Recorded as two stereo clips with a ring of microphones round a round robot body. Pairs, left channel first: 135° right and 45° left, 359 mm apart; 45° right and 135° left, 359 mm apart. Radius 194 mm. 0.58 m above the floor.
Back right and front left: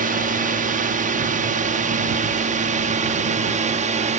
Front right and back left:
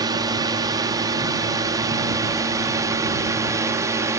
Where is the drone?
70° left.